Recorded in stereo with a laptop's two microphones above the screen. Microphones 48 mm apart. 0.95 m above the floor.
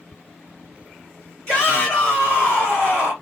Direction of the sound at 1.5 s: 15° left (ahead or behind).